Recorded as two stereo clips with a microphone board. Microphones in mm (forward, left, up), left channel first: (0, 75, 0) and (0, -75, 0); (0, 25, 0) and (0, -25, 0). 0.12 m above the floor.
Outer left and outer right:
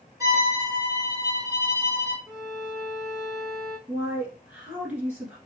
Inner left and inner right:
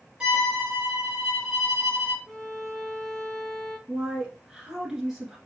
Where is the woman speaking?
10° right (ahead or behind), 1.4 m.